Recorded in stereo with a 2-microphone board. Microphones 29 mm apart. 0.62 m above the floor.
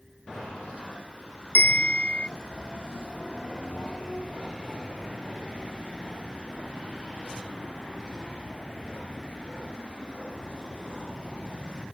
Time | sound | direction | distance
1.6 | a bell | 55° left (ahead or behind) | ?